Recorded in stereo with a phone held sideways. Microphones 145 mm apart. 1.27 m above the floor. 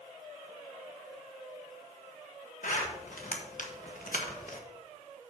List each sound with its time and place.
2.6 s a zipper: 65° left (ahead or behind), 1.5 m